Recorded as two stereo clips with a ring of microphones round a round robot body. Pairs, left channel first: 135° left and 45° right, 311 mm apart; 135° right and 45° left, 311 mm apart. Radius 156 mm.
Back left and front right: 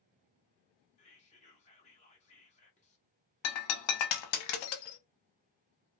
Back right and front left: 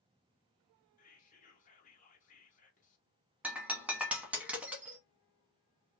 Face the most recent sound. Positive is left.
turn(degrees=130)